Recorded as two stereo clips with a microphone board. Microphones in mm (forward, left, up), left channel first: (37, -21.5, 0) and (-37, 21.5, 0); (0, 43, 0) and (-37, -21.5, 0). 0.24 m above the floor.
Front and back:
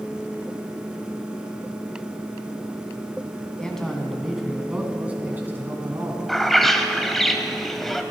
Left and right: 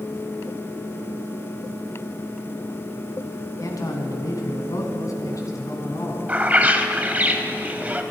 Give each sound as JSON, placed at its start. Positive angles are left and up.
{"t": 3.6, "sound": "a man speaking", "azimuth_deg": 50, "distance_m": 2.0}
{"t": 6.3, "sound": "a bird", "azimuth_deg": -110, "distance_m": 1.0}